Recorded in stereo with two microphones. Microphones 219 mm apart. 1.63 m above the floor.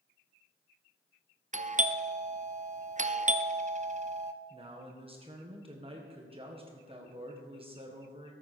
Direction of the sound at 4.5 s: 25° right (ahead or behind).